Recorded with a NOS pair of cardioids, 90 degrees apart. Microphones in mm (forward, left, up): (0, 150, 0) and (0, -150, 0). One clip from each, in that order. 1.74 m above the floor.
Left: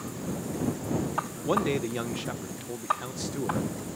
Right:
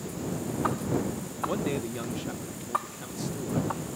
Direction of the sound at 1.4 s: 40° left.